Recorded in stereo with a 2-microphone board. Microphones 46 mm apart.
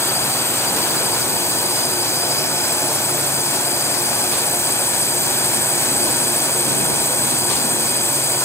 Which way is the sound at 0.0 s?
75° left (ahead or behind).